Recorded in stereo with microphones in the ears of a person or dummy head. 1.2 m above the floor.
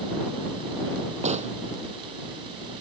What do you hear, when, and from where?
1.2 s a gunshot: 30° right (ahead or behind)